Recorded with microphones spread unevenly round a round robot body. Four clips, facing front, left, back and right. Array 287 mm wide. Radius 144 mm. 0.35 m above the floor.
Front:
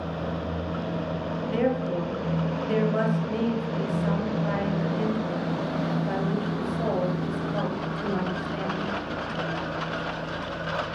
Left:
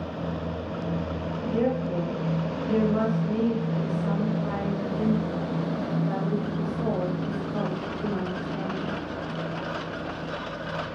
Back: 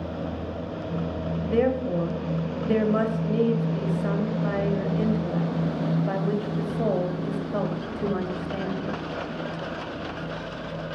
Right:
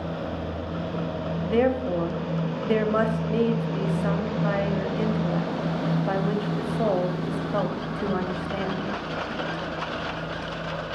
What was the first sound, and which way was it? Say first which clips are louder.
A woman speaking: right 3 dB, back 3 dB; 120° right.